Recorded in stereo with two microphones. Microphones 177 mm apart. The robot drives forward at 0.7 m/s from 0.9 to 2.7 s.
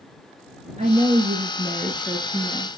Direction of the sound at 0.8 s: 40° right (ahead or behind).